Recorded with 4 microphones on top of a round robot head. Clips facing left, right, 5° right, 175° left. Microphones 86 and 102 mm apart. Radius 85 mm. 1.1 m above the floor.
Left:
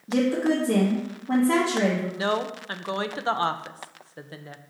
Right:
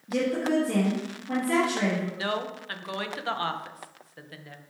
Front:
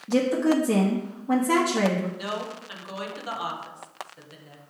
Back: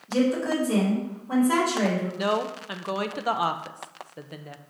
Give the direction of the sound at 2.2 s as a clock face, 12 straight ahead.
7 o'clock.